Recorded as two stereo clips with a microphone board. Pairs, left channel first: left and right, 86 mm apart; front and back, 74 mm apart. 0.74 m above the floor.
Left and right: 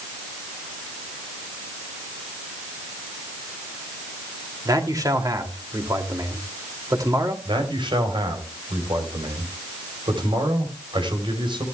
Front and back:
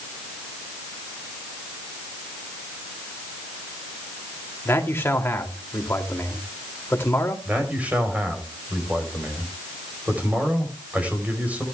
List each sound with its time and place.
4.7 s a man speaking: 55° right, 2 m
7.5 s a man speaking: 110° right, 3.5 m